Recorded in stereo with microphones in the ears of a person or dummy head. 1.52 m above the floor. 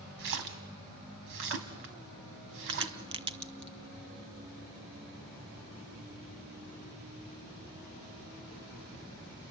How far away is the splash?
About 2.5 m.